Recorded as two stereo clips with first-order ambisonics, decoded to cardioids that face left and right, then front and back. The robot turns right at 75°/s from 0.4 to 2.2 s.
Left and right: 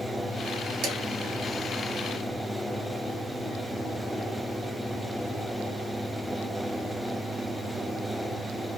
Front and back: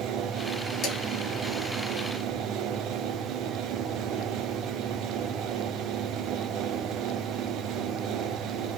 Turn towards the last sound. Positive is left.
turn(degrees=40)